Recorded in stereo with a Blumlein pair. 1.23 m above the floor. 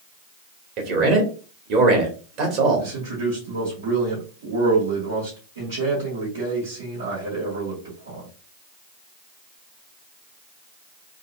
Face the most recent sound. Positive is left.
turn(degrees=-65)